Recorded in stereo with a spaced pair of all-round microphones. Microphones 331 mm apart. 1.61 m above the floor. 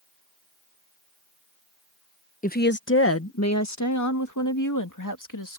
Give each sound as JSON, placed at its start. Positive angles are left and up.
{"t": 2.4, "sound": "a woman speaking", "side_deg": 25}